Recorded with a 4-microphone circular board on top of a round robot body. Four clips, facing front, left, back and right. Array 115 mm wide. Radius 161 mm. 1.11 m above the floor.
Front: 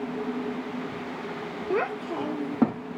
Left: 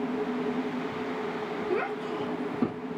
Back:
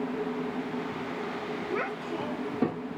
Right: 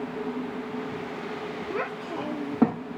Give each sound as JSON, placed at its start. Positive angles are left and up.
{"t": 1.7, "sound": "a child speaking", "azimuth_deg": 5, "distance_m": 0.5}